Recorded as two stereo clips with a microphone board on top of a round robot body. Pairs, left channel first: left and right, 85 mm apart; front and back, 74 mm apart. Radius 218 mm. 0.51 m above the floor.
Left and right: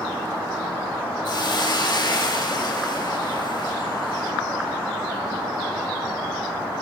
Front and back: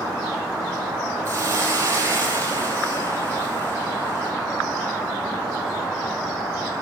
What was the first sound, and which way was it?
A hiss, 130° left.